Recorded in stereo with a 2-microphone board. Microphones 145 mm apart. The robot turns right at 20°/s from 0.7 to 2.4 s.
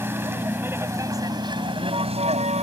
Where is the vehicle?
165° right; by 2.6 s 130° right.